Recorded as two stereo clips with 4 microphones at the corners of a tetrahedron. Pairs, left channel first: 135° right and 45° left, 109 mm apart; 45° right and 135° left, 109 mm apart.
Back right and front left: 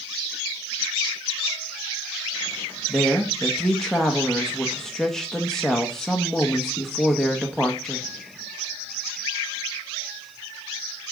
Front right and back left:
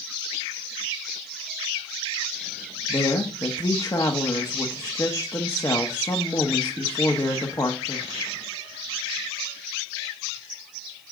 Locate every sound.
2.9 s a woman speaking: 55° right, 0.9 m